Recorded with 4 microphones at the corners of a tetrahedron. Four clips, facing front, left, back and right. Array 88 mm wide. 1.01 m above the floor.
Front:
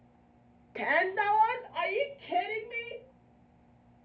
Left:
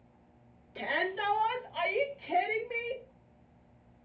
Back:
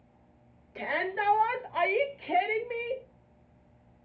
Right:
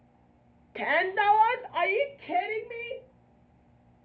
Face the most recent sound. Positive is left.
turn(degrees=-165)